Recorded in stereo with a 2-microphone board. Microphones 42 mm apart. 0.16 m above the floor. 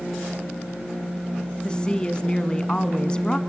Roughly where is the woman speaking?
Left.